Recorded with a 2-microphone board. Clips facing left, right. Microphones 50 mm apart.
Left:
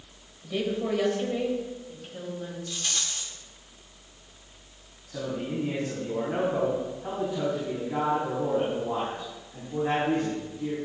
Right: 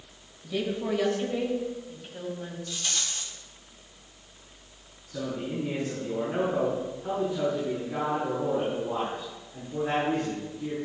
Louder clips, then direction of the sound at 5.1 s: Left 1 dB; 45° left (ahead or behind).